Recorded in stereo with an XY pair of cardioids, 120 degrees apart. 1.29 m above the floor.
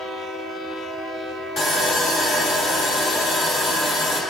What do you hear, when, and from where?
1.6 s sawing: 50° left, 1.2 m